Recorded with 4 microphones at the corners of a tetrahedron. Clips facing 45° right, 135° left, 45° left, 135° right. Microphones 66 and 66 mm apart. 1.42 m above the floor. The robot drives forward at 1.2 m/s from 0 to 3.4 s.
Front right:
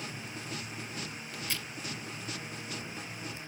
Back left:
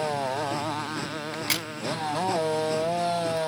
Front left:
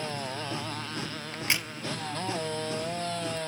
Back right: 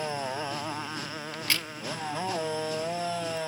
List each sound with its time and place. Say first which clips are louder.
0.0 s a motorcycle: back left 15 dB, back right 3 dB; 150° left; by 3.5 s 140° left
1.3 s a crack: back left 6 dB, front left 1 dB; 100° left; by 1.7 s 125° left